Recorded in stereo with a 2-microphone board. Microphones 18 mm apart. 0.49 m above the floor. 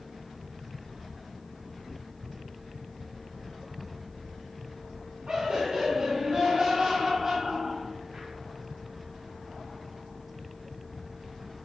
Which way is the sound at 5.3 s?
70° right (ahead or behind).